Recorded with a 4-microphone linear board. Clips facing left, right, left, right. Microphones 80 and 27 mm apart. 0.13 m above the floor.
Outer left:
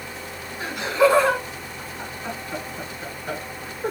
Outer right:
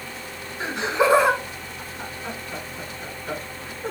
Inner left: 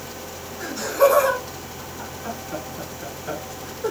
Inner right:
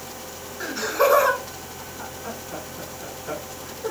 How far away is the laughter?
About 1.2 m.